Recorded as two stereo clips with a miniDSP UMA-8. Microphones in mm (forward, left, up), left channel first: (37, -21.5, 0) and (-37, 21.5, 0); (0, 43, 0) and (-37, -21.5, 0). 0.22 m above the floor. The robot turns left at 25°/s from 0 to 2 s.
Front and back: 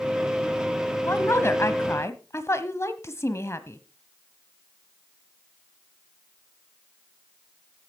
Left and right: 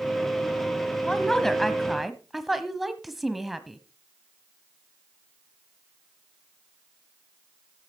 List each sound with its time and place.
1.0 s a woman speaking: 10° right, 1.0 m; by 3.8 s 35° right, 1.0 m